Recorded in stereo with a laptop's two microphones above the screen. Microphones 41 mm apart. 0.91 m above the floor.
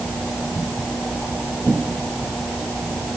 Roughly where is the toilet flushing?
No toilet flushing in this recording.